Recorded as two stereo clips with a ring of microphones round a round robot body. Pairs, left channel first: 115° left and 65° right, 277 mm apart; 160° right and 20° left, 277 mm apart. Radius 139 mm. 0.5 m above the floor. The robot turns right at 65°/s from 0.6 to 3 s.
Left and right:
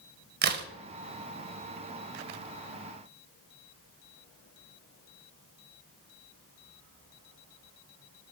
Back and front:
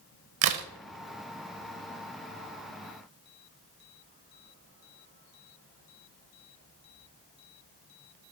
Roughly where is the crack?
Ahead.